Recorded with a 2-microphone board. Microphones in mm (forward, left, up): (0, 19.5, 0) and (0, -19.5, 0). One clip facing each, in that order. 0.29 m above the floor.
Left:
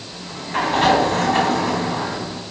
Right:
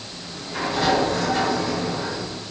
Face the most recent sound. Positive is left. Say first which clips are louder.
# left 8 dB
turn(degrees=50)  # may be behind; listen again after turning